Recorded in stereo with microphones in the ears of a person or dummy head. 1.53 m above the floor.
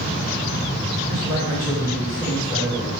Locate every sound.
1.1 s a man speaking: 15° left (ahead or behind), 2 m